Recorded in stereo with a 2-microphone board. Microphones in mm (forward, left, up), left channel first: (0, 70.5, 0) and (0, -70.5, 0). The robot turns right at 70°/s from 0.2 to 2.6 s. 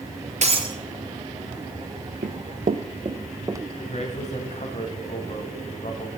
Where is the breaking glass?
55° right (ahead or behind), 1.8 m; by 0.8 s 30° right (ahead or behind), 1.8 m.